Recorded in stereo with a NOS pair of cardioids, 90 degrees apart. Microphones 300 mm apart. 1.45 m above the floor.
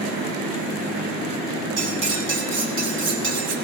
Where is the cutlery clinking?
40° right, 5 m.